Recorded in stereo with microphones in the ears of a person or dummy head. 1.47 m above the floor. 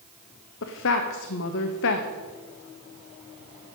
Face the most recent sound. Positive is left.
turn(degrees=65)  # may be behind; listen again after turning